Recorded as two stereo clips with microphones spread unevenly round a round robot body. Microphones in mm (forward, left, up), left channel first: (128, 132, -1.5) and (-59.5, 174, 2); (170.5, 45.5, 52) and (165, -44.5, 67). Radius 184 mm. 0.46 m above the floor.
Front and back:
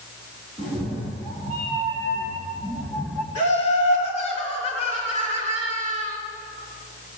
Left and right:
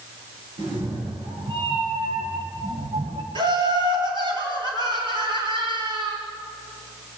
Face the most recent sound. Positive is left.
turn(degrees=-65)